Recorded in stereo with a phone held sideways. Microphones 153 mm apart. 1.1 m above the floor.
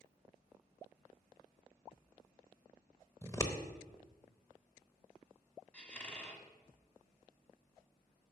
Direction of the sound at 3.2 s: 20° left (ahead or behind).